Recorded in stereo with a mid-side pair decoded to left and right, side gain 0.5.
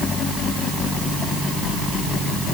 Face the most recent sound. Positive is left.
No sound to turn to.